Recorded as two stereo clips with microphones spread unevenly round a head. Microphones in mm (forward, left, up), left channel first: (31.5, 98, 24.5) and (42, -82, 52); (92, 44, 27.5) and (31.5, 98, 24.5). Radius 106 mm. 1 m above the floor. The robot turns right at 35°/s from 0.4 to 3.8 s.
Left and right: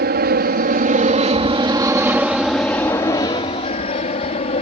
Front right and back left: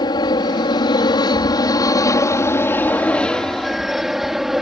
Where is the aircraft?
65° right; by 4.6 s 55° left.